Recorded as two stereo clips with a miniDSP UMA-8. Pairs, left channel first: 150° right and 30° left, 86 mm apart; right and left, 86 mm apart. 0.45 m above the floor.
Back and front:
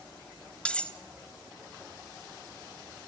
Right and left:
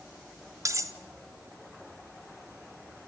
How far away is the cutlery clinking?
About 1.4 m.